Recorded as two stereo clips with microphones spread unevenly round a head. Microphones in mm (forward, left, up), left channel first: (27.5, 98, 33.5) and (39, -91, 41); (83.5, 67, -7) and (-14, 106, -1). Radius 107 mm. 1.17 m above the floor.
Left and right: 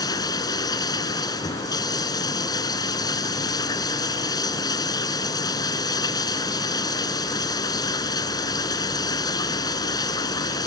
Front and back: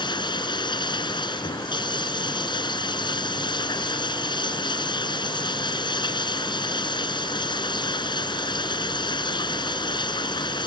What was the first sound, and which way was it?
Running water, 25° left.